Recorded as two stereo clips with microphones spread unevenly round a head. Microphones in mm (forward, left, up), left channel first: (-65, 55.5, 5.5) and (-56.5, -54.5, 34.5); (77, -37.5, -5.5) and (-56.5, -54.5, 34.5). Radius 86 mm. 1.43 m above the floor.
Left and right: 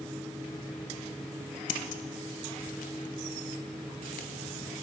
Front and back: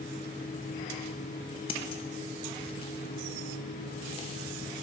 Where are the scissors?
75° left, 0.6 m.